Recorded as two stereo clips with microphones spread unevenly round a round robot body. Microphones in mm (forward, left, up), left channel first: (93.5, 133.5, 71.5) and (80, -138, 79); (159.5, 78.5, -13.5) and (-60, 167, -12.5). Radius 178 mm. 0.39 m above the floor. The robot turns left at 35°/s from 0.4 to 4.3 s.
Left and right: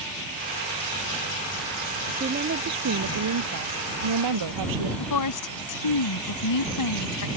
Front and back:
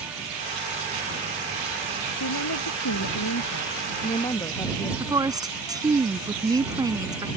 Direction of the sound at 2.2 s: 30° right.